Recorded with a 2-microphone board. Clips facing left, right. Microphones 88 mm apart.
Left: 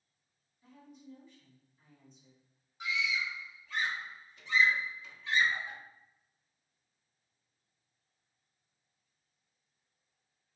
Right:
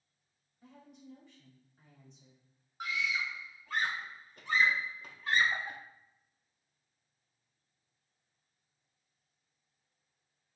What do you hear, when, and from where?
0.6 s a woman speaking: 80° right, 1.6 m
2.8 s a scream: 50° right (ahead or behind), 0.6 m